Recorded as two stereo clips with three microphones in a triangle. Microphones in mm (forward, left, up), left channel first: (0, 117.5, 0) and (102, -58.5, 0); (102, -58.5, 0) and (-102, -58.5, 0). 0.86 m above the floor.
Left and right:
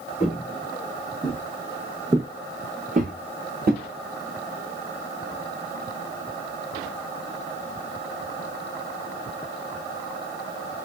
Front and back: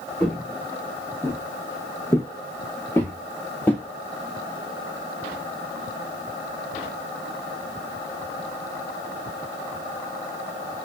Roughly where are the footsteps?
Left.